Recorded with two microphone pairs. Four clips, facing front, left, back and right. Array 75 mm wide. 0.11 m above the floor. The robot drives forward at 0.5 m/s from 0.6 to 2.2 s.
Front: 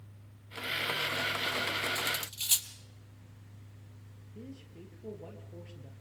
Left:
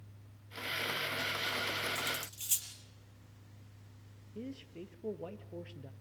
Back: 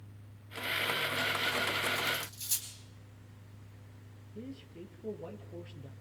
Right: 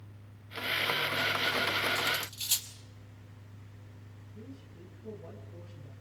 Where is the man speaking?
95° left, 3 m.